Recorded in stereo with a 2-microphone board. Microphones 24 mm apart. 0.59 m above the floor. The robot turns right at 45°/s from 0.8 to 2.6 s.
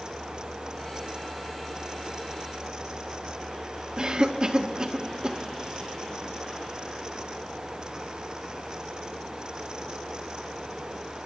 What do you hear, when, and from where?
4.0 s a cough: 35° right (ahead or behind), 1.0 m